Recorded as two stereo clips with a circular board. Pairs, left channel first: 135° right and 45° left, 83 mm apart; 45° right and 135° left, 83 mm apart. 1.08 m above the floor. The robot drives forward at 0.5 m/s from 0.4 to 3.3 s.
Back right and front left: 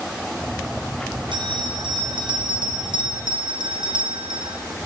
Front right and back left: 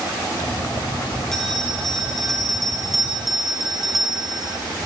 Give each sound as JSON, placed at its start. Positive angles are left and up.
{"t": 1.3, "sound": "a bell", "azimuth_deg": 40, "distance_m": 4.5}